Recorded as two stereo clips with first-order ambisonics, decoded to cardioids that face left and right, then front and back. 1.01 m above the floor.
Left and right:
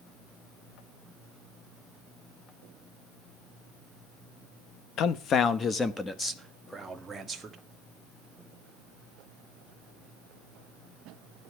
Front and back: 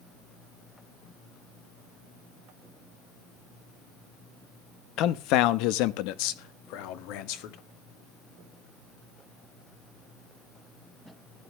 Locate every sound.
5.0 s a man speaking: 45° left, 1.0 m; by 7.6 s 15° right, 2 m